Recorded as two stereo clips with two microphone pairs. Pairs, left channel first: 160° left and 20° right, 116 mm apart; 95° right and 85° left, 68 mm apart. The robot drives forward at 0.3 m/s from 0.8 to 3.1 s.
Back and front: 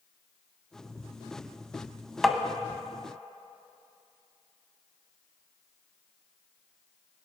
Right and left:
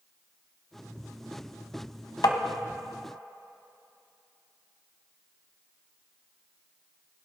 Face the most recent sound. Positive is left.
turn(degrees=-125)